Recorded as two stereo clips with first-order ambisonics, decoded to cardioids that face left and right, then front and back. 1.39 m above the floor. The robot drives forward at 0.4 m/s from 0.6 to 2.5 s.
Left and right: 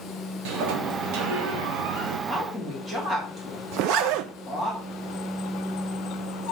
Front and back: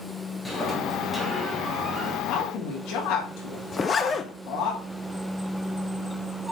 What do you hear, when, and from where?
0.5 s a sliding door: 80° right, 1.8 m; by 2.2 s 100° right, 1.9 m
2.3 s a woman speaking: 20° right, 3.5 m
3.7 s a zipper: 70° right, 0.5 m